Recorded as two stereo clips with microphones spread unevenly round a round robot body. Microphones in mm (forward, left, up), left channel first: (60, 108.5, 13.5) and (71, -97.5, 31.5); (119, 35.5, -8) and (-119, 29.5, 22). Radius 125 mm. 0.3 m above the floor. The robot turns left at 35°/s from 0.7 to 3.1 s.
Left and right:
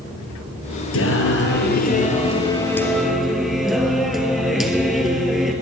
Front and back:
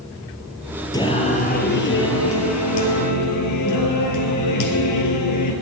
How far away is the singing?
About 2 m.